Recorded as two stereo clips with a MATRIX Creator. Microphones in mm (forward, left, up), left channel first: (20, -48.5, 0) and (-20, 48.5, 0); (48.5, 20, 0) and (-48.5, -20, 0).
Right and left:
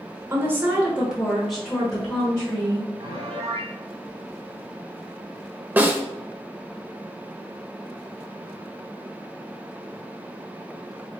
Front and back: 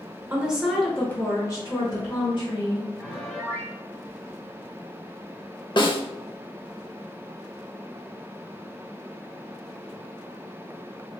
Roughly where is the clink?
I don't hear a clink.